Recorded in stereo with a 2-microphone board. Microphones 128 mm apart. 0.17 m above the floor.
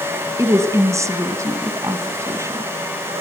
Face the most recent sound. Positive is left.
turn(degrees=-25)  # may be behind; listen again after turning